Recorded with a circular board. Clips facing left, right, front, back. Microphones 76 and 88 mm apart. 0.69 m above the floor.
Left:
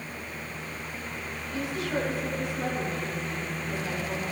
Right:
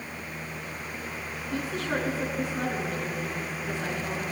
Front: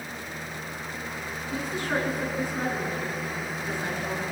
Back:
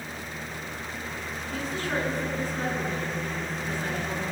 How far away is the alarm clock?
No alarm clock in this recording.